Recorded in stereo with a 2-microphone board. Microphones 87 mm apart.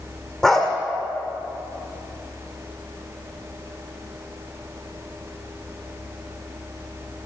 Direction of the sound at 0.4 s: 5° left (ahead or behind).